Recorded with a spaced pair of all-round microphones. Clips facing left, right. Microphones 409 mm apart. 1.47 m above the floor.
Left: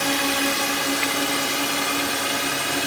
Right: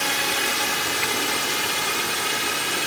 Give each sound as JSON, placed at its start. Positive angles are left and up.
{"t": 0.0, "sound": "a drone", "side_deg": 75}